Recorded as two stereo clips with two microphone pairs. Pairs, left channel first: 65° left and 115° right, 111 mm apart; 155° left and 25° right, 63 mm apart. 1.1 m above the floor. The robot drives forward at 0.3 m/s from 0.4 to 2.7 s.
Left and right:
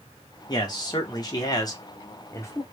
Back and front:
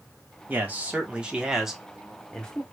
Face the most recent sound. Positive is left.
turn(degrees=105)